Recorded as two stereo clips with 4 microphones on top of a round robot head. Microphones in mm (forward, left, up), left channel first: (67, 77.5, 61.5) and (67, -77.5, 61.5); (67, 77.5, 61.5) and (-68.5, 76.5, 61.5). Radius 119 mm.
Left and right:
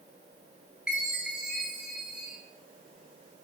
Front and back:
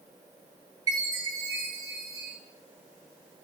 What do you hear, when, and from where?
0.9 s a chime: 165° right, 0.6 m